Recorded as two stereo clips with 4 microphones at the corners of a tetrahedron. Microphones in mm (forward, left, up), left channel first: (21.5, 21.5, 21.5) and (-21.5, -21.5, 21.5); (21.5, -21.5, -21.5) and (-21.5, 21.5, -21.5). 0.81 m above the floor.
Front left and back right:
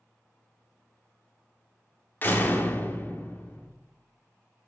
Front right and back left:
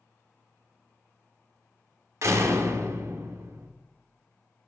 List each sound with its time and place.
2.2 s a door slam: 100° left, 1.6 m